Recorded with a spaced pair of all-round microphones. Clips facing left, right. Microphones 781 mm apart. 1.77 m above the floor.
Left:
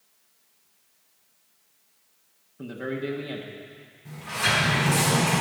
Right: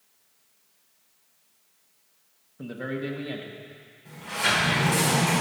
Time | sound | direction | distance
2.6 | a man speaking | 5° right (ahead or behind) | 1.4 m
4.0 | a sliding door | 40° left (ahead or behind) | 4 m